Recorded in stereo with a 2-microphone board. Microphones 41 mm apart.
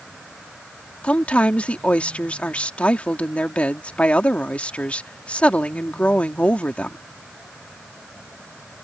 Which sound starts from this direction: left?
A woman speaking, at 1.0 s.